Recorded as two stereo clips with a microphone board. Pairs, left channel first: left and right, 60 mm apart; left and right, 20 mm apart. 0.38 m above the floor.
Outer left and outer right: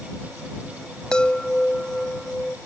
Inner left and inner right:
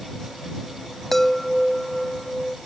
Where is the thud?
No thud in this recording.